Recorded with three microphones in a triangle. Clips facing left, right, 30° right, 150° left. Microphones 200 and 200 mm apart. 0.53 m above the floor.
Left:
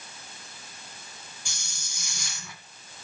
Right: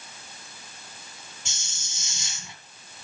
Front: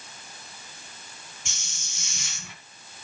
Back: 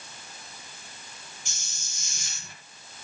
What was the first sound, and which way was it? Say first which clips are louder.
A hiss: even, front 3 dB; 25° right.